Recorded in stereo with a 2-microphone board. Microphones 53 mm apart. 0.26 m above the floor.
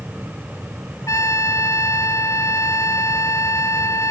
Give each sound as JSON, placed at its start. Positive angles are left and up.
{"t": 1.1, "sound": "a trumpet", "side_deg": 70}